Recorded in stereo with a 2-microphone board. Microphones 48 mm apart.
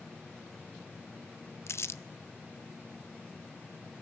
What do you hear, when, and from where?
1.7 s crumpling: 65° left (ahead or behind), 0.5 m